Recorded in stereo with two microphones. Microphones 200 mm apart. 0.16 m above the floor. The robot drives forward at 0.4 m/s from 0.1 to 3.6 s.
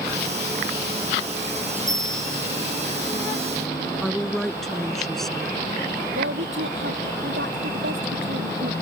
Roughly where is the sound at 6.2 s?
Right.